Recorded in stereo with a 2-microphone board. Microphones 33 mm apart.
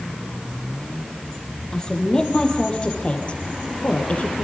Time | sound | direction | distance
1.7 | a woman speaking | 20° left (ahead or behind) | 7 m